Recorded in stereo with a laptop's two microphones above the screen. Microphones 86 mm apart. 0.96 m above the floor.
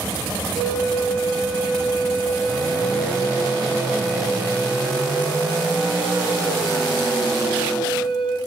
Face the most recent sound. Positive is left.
turn(degrees=70)  # may be behind; listen again after turning